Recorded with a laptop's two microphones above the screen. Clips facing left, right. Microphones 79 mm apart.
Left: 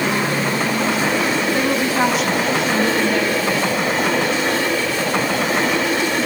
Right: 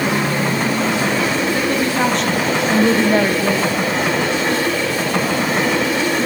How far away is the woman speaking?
About 1.9 m.